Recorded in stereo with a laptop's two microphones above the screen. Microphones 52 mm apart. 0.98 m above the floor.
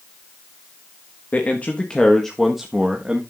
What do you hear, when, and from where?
1.3 s a man speaking: 35° left (ahead or behind), 1.5 m; by 3.2 s 20° right (ahead or behind), 1.6 m